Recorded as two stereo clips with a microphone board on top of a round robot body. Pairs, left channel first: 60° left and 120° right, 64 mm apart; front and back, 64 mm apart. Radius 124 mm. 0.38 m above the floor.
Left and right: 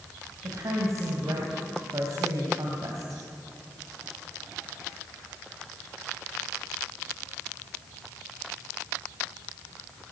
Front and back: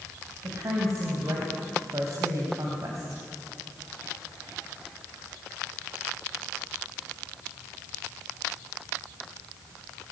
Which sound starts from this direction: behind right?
A woman speaking, at 0.4 s.